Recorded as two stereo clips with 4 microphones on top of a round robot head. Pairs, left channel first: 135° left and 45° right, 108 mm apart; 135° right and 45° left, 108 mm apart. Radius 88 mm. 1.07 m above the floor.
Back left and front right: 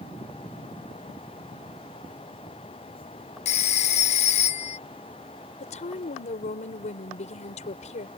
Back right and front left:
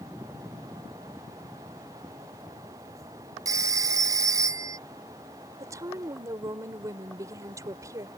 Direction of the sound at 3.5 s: 110° left.